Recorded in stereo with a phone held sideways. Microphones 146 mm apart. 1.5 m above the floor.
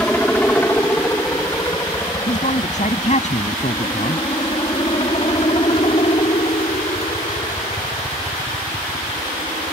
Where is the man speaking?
50° left (ahead or behind).